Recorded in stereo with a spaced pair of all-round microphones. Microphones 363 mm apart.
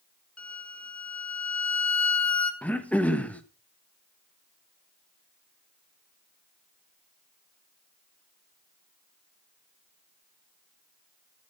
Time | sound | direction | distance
0.4 | a violin | 45° left (ahead or behind) | 1.7 m
2.6 | throat clearing | 5° left (ahead or behind) | 1.3 m